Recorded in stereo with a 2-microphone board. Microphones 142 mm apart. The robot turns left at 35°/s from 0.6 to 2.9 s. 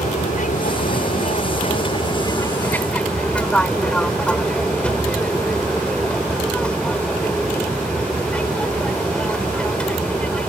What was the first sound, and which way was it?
An aircraft, 90° left.